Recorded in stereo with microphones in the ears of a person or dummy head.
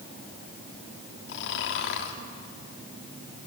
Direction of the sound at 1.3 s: 60° left (ahead or behind).